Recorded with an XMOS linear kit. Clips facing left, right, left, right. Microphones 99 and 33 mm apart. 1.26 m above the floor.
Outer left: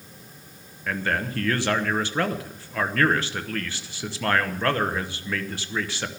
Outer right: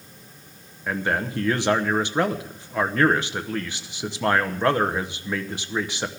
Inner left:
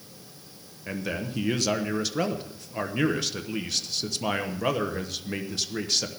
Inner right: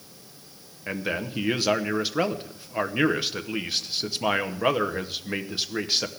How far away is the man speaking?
About 1.0 m.